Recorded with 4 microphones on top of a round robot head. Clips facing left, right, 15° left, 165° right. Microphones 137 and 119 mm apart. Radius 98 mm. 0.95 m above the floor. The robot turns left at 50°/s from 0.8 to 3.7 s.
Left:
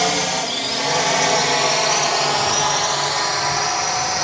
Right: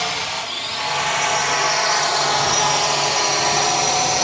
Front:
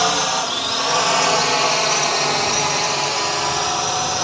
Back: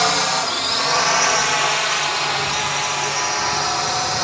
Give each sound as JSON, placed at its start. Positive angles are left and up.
{"t": 0.0, "sound": "a drone", "azimuth_deg": 90}